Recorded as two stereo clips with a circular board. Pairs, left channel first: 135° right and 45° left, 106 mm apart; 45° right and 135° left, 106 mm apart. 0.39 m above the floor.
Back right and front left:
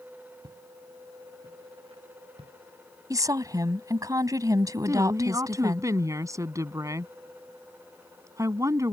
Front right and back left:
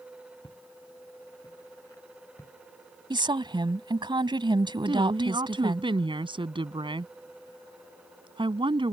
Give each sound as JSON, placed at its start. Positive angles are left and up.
{"t": 0.4, "sound": "footsteps", "azimuth_deg": 0}
{"t": 3.1, "sound": "a woman speaking", "azimuth_deg": 100}
{"t": 4.8, "sound": "a woman speaking", "azimuth_deg": 105}